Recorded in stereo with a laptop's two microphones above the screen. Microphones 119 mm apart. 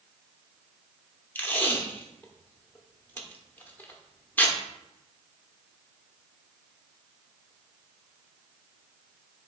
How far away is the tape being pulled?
About 0.8 m.